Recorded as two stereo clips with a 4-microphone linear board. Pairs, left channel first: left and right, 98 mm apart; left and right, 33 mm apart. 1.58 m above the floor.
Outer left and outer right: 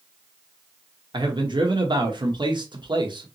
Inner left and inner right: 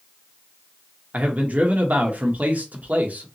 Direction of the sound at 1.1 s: 50° right (ahead or behind).